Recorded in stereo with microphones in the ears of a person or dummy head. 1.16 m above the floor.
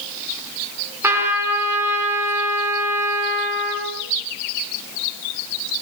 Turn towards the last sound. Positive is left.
turn(degrees=-20)  # may be behind; listen again after turning